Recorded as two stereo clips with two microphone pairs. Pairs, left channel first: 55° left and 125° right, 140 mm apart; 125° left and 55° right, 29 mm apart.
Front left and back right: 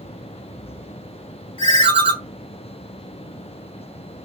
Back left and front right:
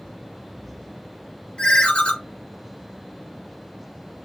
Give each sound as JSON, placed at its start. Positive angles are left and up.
{"t": 1.6, "sound": "a ringtone", "azimuth_deg": 90, "distance_m": 0.9}